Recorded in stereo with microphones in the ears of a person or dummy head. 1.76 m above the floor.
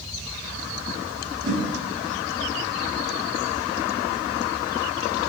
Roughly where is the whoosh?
Right.